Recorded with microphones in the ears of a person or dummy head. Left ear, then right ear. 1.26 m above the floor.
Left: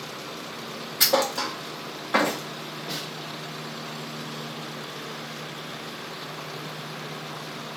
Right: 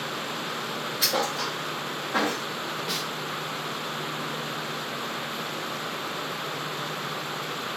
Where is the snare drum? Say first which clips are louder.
Right 2 dB; 30° right (ahead or behind), 0.8 m.